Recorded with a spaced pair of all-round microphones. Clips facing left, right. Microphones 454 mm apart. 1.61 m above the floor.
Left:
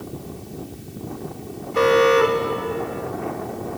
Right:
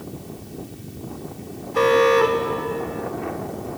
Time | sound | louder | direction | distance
1.7 | an alarm | left 1 dB | centre (ahead or behind) | ?